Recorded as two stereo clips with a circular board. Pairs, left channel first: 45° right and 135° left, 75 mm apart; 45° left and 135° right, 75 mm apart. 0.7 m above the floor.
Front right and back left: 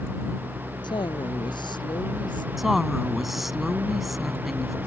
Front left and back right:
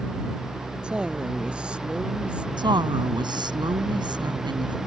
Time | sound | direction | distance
0.8 | a woman speaking | 55° right | ?
2.6 | a woman speaking | 135° right | ?